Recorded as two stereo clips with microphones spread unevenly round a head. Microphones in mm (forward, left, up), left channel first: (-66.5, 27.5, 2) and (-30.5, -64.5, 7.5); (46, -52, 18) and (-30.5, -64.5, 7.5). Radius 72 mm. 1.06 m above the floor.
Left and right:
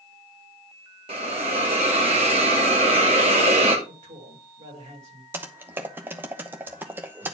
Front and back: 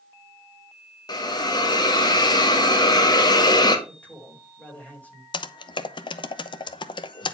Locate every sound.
1.1 s a hiss: 25° right, 2 m
3.9 s a man speaking: 60° right, 4.5 m
5.3 s typing on a keyboard: 5° left, 0.8 m